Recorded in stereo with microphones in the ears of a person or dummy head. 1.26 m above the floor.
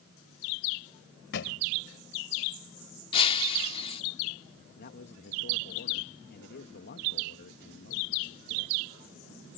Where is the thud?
60° left (ahead or behind).